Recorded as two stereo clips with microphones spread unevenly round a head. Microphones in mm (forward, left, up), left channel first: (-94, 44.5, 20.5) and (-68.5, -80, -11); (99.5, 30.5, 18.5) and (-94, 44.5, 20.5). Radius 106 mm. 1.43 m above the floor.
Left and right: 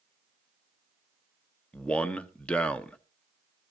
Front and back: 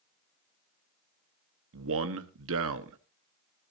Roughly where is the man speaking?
Behind.